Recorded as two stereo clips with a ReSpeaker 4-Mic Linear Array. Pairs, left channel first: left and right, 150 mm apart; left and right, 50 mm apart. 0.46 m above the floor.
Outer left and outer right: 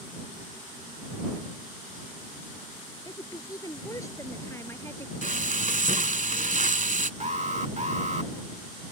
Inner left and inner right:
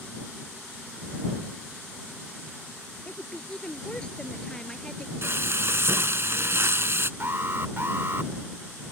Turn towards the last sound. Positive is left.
turn(degrees=-50)  # may be behind; listen again after turning